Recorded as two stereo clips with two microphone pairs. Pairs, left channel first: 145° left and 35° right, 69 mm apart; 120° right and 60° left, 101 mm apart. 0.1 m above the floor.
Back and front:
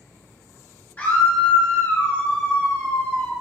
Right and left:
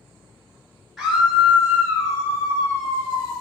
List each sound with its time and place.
1.0 s a scream: 140° left, 1.4 m; by 3.3 s 95° left, 2 m